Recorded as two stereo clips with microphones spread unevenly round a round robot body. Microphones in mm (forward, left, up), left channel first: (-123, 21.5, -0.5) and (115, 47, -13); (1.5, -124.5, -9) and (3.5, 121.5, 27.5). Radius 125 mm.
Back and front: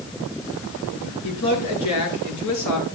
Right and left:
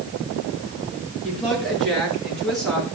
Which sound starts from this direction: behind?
A woman speaking, at 1.2 s.